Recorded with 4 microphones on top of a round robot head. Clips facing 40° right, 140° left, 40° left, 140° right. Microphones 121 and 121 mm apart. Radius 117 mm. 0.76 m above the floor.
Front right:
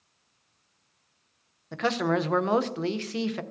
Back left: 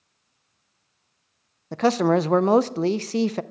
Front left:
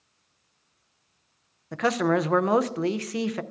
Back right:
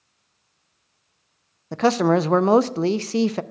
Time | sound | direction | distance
1.7 | a man speaking | 175° left | 0.5 m